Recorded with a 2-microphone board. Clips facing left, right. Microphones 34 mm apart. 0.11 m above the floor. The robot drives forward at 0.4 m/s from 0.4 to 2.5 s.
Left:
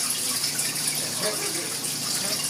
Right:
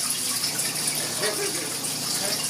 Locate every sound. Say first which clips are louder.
1.0 s laughter: right 3 dB; 20° right (ahead or behind), 1.4 m; by 2.4 s 15° right (ahead or behind), 1.8 m